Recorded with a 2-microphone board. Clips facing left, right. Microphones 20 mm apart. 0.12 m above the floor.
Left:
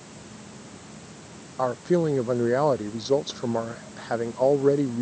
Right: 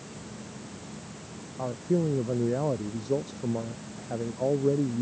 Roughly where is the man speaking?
Left.